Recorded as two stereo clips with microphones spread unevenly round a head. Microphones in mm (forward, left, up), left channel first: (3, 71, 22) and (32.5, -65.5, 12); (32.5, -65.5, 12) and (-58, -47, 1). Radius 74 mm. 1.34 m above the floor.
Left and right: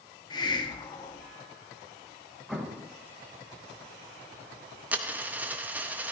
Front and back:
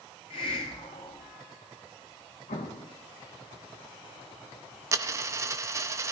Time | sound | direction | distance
0.3 | a hiss | 40° left | 1.4 m
2.5 | an explosion | 10° left | 1.3 m
4.9 | a dropped coin | 155° right | 0.7 m